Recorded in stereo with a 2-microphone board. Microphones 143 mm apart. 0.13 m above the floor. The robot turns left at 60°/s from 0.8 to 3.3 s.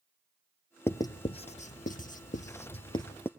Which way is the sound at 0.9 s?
15° left (ahead or behind).